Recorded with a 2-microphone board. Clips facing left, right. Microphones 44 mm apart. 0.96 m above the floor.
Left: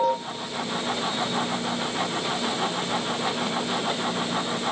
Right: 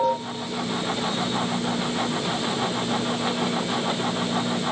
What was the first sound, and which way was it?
Only background noise.